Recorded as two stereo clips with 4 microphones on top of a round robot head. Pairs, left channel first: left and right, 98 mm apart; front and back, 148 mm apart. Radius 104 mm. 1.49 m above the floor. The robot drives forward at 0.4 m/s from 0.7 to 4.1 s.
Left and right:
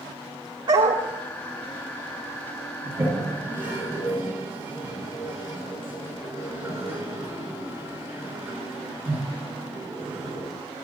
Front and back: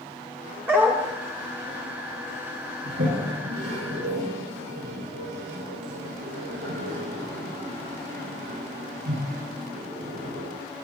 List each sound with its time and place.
0.7 s a dog barking: 110° right, 1.3 m; by 1.0 s 115° right, 1.3 m
2.9 s a toilet flushing: 160° right, 6.5 m